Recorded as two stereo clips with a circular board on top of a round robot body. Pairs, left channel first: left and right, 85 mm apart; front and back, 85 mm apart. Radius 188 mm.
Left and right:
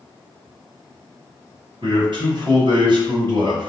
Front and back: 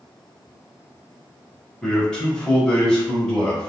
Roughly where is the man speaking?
Right.